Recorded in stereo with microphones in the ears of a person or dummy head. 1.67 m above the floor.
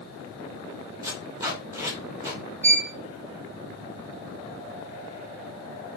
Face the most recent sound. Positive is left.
turn(degrees=-5)  # may be behind; listen again after turning